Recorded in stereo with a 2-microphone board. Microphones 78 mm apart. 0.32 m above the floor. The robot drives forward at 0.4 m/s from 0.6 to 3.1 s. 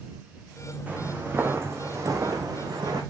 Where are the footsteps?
20° right (ahead or behind), 1.6 m; by 3.0 s 65° right (ahead or behind), 1.7 m.